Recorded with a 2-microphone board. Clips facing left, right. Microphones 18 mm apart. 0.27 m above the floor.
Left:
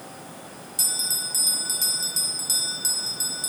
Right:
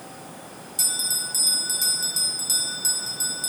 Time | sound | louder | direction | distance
0.8 | a bell | even | centre (ahead or behind) | 1.6 m